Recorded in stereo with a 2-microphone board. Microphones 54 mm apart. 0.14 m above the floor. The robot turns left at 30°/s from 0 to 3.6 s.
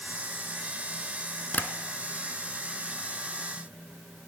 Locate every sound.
1.5 s tapping: 35° left (ahead or behind), 0.7 m